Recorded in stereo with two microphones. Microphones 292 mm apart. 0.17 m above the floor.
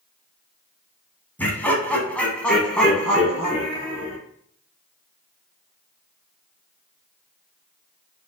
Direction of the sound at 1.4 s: 5° left (ahead or behind).